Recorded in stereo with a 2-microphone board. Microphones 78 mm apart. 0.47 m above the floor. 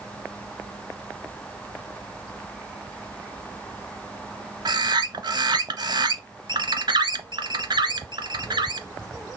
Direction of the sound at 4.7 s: 65° right (ahead or behind).